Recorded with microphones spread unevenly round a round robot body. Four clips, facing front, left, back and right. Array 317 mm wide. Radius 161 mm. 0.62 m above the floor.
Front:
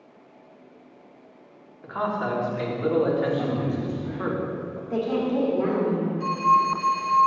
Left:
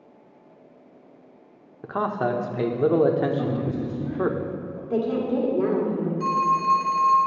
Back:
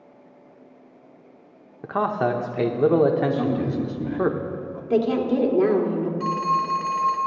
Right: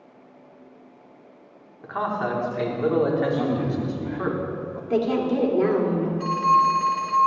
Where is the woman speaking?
155° right, 1.8 m.